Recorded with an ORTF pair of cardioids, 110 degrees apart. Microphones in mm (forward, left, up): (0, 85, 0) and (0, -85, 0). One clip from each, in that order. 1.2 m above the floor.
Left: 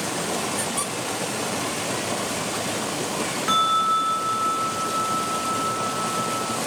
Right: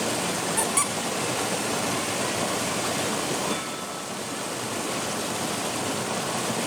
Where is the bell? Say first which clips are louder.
Left 12 dB; 70° left, 1.0 m.